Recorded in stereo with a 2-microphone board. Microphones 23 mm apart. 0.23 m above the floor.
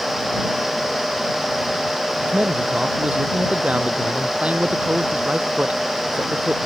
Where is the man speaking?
65° right (ahead or behind).